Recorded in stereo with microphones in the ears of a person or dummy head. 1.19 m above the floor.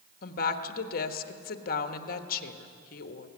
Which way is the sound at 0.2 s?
55° left (ahead or behind).